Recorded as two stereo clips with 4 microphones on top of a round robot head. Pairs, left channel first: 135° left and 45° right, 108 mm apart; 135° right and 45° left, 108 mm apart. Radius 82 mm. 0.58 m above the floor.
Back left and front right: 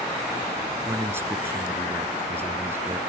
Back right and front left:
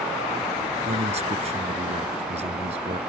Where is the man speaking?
25° left.